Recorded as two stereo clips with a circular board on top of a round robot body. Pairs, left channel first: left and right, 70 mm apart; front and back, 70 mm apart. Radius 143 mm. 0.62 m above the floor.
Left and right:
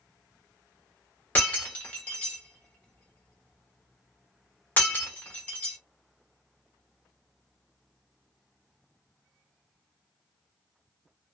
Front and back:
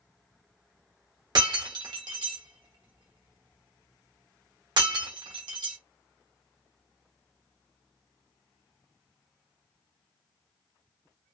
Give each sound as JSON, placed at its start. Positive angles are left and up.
{"t": 1.4, "sound": "breaking glass", "azimuth_deg": 160, "distance_m": 0.9}